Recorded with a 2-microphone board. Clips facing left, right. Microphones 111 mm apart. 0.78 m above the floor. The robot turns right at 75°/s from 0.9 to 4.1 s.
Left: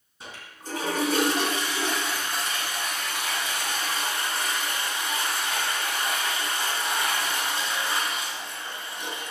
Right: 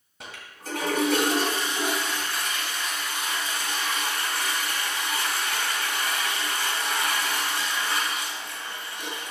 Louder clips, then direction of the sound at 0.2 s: Right 1 dB; 85° right.